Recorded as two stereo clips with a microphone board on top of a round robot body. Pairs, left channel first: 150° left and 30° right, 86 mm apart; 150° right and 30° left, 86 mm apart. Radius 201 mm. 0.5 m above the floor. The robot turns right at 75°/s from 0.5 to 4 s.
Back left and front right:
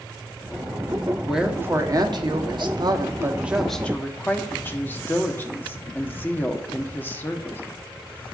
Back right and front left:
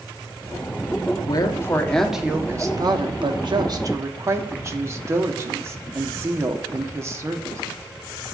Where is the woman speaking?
125° right, 1.3 m; by 7.6 s 85° left, 1.3 m.